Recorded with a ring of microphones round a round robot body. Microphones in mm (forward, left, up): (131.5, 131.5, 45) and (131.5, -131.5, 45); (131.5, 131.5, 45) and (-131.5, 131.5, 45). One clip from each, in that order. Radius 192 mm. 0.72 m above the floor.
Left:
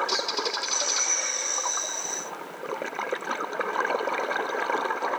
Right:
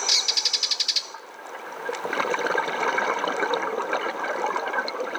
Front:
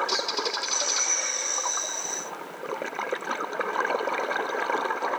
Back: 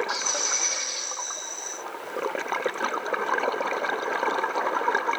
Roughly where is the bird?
Ahead right.